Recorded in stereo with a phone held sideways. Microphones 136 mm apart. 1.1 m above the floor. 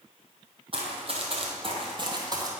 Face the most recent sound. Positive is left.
turn(degrees=-25)  # may be behind; listen again after turning